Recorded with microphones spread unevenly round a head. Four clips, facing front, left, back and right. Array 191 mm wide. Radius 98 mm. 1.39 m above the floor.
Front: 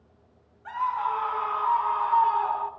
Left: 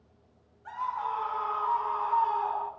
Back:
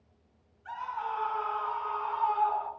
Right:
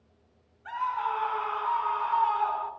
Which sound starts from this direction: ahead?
A scream, at 0.7 s.